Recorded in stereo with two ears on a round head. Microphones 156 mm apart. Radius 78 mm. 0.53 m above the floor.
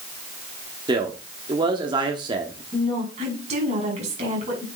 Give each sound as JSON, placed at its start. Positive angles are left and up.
{"t": 0.9, "sound": "a man speaking", "side_deg": -25, "distance_m": 1.1}
{"t": 2.7, "sound": "a woman speaking", "side_deg": -40, "distance_m": 5.5}